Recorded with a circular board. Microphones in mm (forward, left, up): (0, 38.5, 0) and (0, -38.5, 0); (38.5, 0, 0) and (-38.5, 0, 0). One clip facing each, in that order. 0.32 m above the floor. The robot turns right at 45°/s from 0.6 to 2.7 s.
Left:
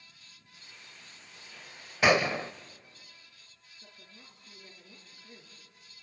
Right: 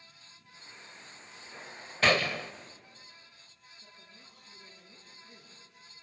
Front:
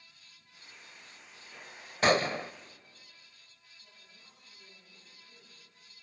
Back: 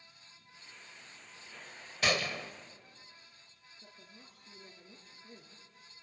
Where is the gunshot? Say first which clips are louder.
Left 3 dB, front 7 dB; 20° left, 0.5 m; by 2.5 s 45° left, 0.5 m.